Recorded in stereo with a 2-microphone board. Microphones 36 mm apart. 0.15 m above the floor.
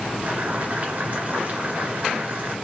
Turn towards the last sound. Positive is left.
turn(degrees=-40)  # may be behind; listen again after turning